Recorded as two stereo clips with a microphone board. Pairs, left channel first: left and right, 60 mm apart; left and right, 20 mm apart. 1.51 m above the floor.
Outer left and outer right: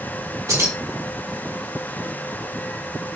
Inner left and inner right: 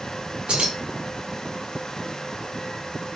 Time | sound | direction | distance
0.5 | keys jangling | 60° right (ahead or behind) | 1.6 m